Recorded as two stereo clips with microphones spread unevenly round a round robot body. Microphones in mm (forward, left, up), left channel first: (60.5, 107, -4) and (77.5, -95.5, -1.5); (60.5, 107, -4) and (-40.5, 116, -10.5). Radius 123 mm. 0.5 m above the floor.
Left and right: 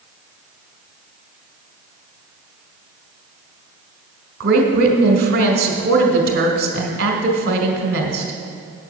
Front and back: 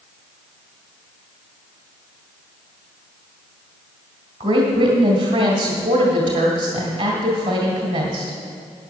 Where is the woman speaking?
135° right, 1.9 m.